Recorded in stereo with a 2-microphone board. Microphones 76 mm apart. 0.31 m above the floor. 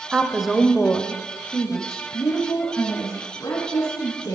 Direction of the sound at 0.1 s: 10° right (ahead or behind).